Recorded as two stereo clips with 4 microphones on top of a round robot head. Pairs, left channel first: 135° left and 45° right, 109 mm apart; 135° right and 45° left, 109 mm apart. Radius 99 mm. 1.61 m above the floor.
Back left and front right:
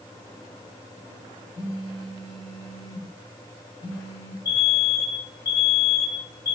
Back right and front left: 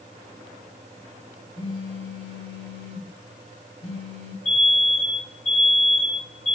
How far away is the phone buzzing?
About 6 m.